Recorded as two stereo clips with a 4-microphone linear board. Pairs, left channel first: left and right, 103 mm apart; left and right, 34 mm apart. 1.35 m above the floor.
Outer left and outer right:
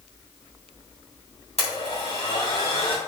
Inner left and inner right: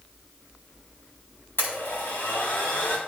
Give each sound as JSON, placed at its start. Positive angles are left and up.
{"t": 1.6, "sound": "a blender", "side_deg": 80, "distance_m": 3.5}